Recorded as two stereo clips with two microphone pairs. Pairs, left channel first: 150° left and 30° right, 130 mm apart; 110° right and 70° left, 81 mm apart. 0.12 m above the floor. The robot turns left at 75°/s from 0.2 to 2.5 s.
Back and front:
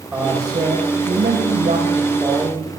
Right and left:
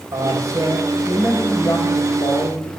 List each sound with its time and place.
0.1 s a man speaking: 50° left, 7 m; by 2.7 s 120° right, 7 m